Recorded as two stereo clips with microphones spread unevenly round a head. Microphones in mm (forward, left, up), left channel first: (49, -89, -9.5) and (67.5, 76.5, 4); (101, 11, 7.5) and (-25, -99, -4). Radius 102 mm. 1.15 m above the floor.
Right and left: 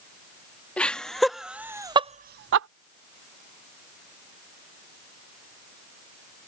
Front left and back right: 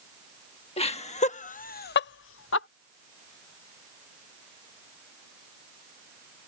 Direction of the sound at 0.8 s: 15° right.